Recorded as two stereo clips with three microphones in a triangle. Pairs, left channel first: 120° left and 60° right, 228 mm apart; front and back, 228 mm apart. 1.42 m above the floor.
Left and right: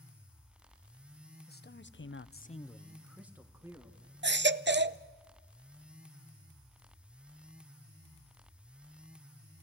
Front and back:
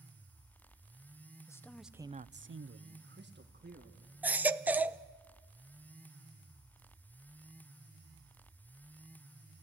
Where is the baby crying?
100° right, 0.6 m.